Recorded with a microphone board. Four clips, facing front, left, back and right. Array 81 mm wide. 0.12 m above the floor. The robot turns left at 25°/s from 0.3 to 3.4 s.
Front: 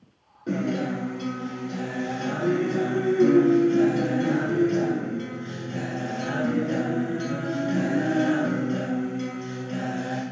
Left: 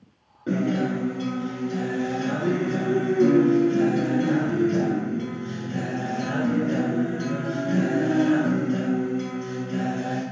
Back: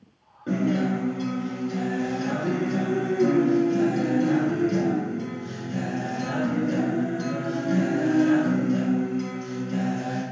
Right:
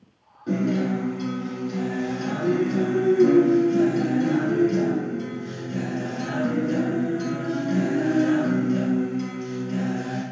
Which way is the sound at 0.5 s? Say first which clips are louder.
Even, back 2 dB; 115° left.